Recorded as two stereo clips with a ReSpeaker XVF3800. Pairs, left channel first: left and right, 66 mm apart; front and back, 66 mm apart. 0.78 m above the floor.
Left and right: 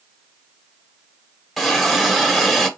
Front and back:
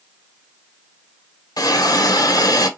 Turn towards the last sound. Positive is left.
turn(degrees=0)